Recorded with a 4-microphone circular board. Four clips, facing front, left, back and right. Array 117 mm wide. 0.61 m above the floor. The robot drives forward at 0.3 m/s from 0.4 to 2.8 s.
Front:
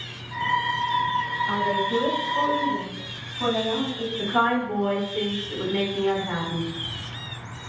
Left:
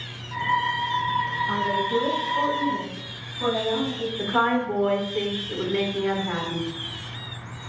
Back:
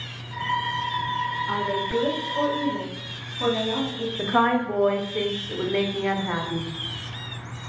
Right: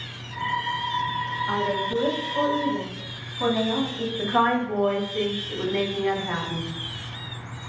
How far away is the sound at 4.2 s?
About 0.8 m.